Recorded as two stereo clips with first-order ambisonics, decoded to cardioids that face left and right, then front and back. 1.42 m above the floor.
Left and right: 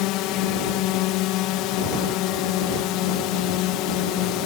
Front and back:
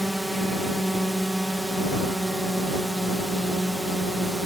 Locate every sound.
0.0 s a drone: 95° left